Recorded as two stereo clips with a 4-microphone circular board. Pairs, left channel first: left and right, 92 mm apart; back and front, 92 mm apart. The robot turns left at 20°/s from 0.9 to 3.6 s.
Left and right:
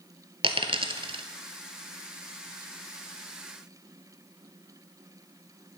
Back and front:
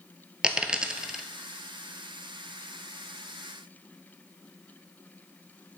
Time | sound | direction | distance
0.4 | a dropped coin | 80° right | 0.8 m